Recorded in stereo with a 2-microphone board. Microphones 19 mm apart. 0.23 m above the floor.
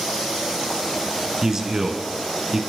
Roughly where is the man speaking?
Right.